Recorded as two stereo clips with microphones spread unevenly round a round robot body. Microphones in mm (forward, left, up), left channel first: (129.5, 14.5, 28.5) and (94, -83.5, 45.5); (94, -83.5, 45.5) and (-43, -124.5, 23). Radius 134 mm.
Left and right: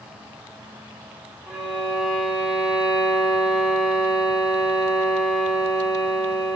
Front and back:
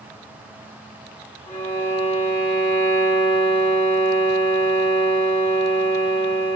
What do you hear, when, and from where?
1.5 s a violin: 30° right, 3 m